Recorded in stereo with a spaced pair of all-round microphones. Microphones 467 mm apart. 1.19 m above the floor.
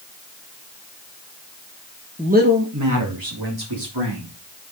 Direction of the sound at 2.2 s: 10° right (ahead or behind).